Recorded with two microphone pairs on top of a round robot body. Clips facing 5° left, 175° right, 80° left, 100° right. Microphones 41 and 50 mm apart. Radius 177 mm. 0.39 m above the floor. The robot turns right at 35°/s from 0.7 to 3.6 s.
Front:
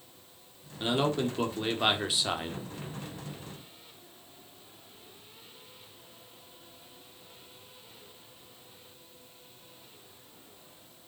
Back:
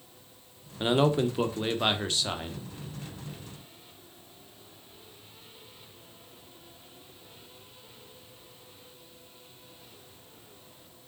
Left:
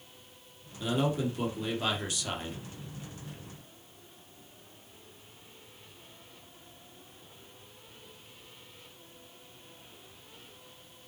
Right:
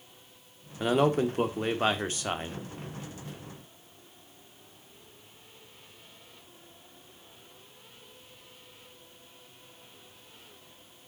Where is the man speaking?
100° right, 1.8 m; by 2.6 s 40° right, 1.8 m.